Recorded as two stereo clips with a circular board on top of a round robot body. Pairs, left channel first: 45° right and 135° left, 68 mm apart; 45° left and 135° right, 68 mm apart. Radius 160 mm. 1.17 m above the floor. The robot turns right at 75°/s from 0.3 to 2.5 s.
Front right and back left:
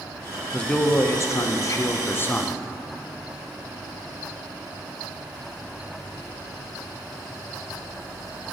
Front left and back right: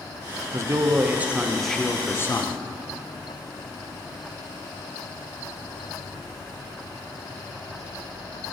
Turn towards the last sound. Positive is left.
turn(degrees=25)